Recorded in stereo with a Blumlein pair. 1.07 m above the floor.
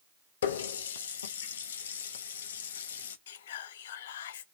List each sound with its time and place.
0.4 s a running tap: 60° left, 0.5 m
3.3 s whispering: 60° left, 0.5 m